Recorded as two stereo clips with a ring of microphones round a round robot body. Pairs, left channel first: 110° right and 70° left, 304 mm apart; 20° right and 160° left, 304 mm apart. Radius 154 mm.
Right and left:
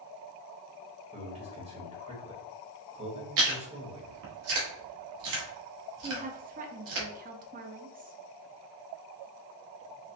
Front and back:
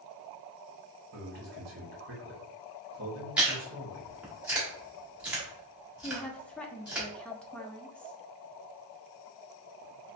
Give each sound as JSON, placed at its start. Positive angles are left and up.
{"t": 1.1, "sound": "a man speaking", "azimuth_deg": 130, "distance_m": 1.3}
{"t": 3.4, "sound": "chewing", "azimuth_deg": 70, "distance_m": 1.3}
{"t": 6.0, "sound": "a woman speaking", "azimuth_deg": 60, "distance_m": 0.6}